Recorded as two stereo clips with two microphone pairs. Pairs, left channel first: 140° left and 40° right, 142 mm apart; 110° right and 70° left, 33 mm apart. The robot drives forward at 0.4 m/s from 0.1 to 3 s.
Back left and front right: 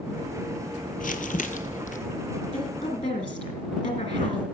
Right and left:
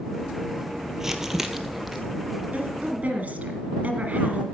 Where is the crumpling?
155° left, 0.8 m; by 2.0 s 160° left, 1.2 m.